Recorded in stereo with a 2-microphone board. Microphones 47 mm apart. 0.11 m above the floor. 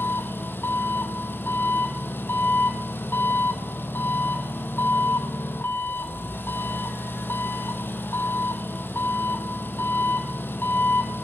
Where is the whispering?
No whispering in this recording.